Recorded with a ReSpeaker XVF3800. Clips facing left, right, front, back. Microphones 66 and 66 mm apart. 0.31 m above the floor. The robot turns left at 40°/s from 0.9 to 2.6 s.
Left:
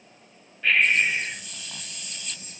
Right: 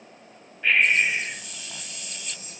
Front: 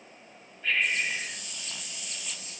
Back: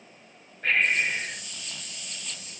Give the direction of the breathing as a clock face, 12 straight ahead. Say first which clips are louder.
Even, back 4 dB; 6 o'clock.